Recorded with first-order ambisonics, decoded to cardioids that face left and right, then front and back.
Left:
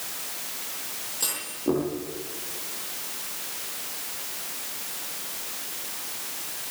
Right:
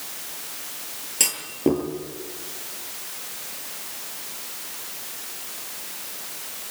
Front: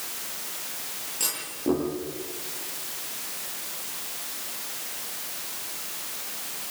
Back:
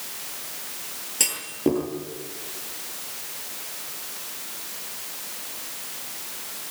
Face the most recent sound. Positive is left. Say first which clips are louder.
# right 6 dB, back 5 dB
turn(degrees=-125)